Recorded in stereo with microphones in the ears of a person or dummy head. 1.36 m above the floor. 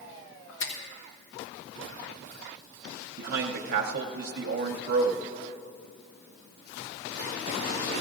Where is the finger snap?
75° left (ahead or behind), 2.0 m.